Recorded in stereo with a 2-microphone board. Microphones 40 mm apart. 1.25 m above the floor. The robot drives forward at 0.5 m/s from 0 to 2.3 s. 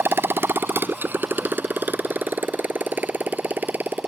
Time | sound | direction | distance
0.0 | a motorcycle | 80° right | ?